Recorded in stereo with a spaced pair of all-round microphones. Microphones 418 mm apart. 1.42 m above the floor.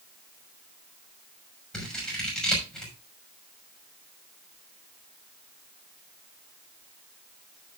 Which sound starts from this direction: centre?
Scissors, at 1.7 s.